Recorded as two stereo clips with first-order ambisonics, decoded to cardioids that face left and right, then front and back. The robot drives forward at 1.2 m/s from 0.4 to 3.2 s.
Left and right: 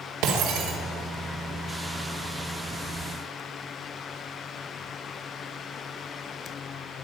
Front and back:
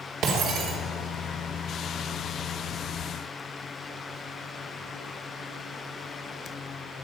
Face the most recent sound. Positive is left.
turn(degrees=-155)